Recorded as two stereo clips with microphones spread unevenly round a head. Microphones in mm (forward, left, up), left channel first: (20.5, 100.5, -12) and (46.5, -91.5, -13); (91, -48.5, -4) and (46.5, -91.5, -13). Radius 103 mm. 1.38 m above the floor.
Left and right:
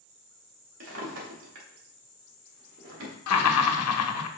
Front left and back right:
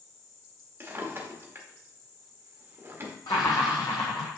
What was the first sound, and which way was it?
A drawer, 85° right.